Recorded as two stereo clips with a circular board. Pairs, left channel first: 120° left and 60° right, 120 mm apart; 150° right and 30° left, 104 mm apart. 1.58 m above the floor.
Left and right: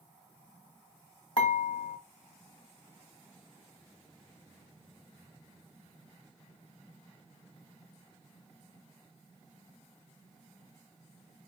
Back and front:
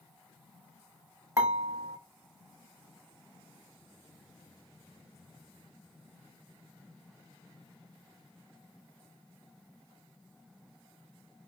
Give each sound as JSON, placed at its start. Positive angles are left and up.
{"t": 1.4, "sound": "dishes clattering", "azimuth_deg": 85, "distance_m": 1.6}